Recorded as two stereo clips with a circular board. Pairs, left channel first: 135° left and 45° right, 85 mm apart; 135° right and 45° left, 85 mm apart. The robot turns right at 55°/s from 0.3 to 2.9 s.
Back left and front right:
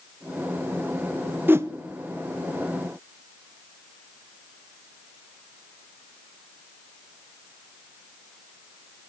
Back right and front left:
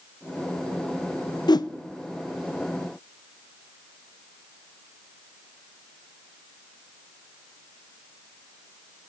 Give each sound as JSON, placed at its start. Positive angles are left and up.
{"t": 1.5, "sound": "a whoosh", "azimuth_deg": -110, "distance_m": 0.7}